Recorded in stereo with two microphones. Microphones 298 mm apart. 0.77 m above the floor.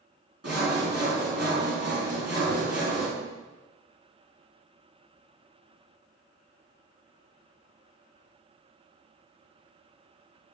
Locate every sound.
0.4 s sawing: 60° right (ahead or behind), 4.5 m